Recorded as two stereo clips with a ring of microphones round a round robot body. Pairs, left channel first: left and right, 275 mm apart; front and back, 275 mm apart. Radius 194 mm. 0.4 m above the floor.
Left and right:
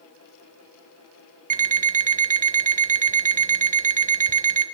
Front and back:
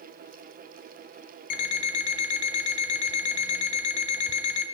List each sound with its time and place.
1.5 s an alarm clock: 25° right, 0.6 m